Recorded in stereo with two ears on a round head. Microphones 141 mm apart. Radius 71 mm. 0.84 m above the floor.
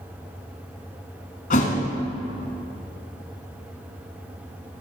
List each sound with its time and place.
1.5 s a thud: 55° left (ahead or behind), 1.5 m